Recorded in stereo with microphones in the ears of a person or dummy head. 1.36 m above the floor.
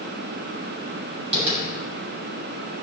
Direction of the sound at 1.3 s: 35° right (ahead or behind).